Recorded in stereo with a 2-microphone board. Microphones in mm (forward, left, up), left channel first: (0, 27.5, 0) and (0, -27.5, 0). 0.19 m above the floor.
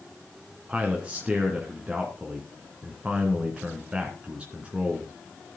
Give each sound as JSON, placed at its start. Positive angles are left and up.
{"t": 0.7, "sound": "a man speaking", "side_deg": -20, "distance_m": 2.5}